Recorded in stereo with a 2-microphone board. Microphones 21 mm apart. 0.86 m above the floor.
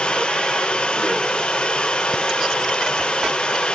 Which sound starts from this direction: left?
Running water, at 0.0 s.